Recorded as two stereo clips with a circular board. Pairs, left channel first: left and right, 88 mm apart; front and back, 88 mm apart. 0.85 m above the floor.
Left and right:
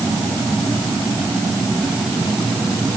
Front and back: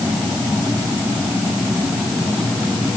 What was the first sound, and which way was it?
Only background noise.